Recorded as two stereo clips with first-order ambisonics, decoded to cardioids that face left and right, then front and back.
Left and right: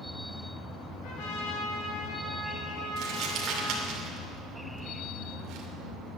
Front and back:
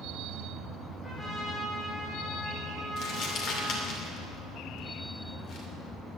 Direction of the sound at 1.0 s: 85° left.